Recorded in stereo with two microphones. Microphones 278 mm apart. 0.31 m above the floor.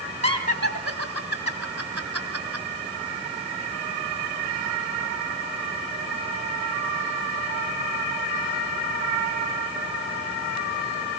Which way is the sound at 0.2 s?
55° right (ahead or behind).